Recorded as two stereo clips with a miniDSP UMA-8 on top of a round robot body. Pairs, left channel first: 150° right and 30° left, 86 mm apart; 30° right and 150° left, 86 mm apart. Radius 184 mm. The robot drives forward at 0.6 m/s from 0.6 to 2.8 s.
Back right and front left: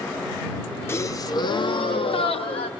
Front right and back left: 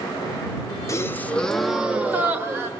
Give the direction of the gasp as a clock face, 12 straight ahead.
3 o'clock.